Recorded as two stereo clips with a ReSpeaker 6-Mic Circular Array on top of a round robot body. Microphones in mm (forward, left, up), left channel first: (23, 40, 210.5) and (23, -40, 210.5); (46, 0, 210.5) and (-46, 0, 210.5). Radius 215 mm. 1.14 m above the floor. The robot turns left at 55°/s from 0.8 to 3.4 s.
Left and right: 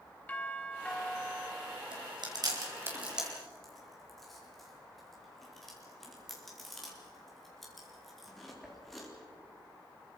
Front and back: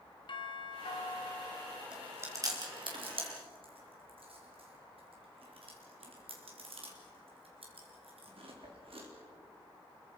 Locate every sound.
0.3 s a doorbell: 20° left, 2.5 m; by 1.8 s 35° right, 2.5 m
1.9 s chewing: 100° right, 4 m; by 9.1 s straight behind, 4 m